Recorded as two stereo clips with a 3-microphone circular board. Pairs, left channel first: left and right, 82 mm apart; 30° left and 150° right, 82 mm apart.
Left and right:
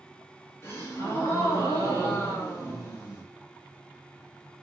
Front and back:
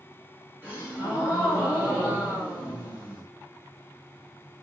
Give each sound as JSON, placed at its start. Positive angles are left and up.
{"t": 0.6, "sound": "a gasp", "azimuth_deg": 150, "distance_m": 2.0}